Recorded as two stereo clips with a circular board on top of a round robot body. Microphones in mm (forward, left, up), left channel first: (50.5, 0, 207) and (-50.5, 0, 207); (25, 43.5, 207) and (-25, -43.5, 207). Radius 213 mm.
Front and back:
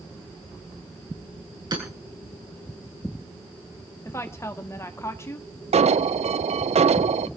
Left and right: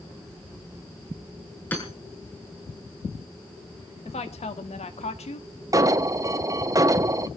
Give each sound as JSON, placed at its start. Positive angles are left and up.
{"t": 1.7, "sound": "hammering", "azimuth_deg": 135, "distance_m": 8.0}
{"t": 4.0, "sound": "a woman speaking", "azimuth_deg": 65, "distance_m": 1.9}
{"t": 5.7, "sound": "an alarm", "azimuth_deg": 180, "distance_m": 0.6}